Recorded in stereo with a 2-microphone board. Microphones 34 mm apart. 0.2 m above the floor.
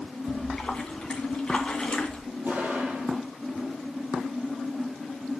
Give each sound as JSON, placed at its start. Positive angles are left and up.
{"t": 0.3, "sound": "a splash", "side_deg": 25, "distance_m": 1.8}
{"t": 2.5, "sound": "an explosion", "side_deg": -60, "distance_m": 4.0}